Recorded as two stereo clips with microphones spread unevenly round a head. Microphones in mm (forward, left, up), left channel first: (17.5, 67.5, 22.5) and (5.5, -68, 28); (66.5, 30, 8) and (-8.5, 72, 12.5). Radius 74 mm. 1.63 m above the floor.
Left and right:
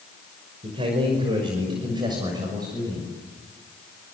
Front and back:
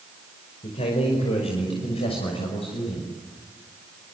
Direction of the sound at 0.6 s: 40° right.